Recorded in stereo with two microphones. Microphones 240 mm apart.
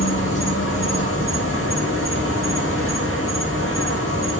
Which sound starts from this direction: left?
An insect, at 0.0 s.